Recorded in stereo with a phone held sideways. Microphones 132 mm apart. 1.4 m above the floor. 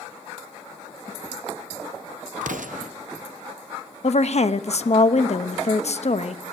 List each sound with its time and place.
2.4 s an explosion: 80° right, 0.7 m
4.0 s a woman speaking: 55° left (ahead or behind), 0.6 m